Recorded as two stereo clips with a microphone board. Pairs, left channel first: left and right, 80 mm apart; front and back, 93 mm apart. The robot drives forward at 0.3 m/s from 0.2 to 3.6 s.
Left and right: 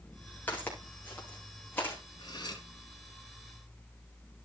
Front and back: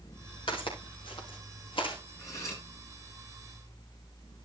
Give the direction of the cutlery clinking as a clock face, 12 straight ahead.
10 o'clock.